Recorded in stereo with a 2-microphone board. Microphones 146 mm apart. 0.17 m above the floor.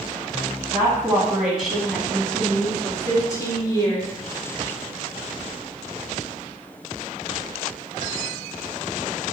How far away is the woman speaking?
About 1.1 m.